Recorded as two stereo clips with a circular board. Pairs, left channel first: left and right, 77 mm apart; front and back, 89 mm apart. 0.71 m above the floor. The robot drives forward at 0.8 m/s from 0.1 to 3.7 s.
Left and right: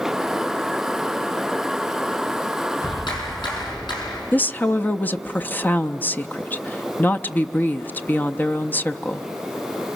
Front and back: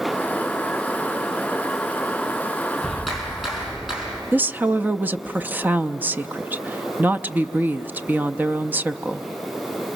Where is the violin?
No violin in this recording.